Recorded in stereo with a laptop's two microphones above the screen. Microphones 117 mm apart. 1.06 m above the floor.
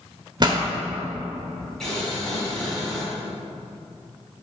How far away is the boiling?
About 1.9 m.